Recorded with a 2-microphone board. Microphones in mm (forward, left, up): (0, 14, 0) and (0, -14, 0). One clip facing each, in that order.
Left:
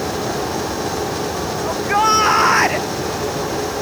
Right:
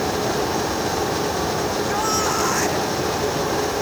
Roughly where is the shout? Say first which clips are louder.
Left 6 dB; left.